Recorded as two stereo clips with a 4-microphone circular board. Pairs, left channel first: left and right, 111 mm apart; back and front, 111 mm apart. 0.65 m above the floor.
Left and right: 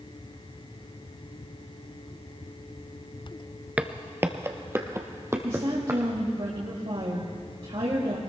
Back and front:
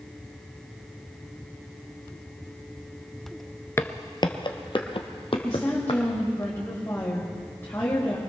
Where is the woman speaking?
115° right, 2.5 m.